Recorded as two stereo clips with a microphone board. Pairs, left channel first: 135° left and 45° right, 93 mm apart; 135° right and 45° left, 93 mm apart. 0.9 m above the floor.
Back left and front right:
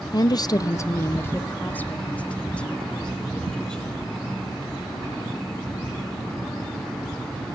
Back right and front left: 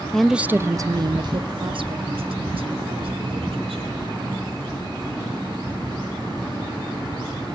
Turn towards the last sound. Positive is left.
turn(degrees=50)